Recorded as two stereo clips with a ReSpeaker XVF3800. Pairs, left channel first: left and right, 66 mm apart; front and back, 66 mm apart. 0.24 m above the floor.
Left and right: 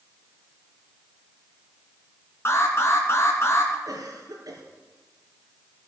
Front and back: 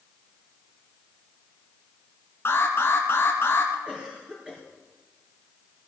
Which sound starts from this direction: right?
A cough, at 3.9 s.